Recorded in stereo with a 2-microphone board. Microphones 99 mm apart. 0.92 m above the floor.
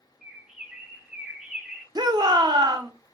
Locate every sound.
0.2 s a bird: 10° right (ahead or behind), 0.6 m
1.9 s a shout: 40° right (ahead or behind), 0.5 m